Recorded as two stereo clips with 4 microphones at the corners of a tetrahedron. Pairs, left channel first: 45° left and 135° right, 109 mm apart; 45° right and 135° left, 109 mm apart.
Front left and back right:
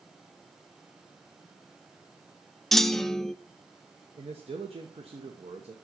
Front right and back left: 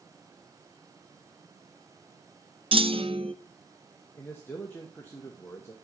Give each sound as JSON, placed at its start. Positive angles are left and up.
{"t": 2.7, "sound": "a clunk", "azimuth_deg": 130, "distance_m": 0.5}
{"t": 4.2, "sound": "a man speaking", "azimuth_deg": -115, "distance_m": 1.1}